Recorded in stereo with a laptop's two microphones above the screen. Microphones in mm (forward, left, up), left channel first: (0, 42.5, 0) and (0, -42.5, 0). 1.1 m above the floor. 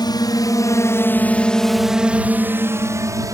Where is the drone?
55° left (ahead or behind); by 3.3 s 40° right (ahead or behind).